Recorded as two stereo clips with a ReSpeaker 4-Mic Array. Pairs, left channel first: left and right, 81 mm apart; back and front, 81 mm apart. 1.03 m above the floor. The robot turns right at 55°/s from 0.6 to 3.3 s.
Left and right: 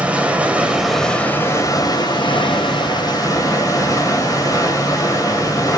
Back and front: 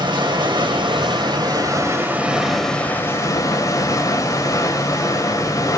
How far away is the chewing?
No chewing in this recording.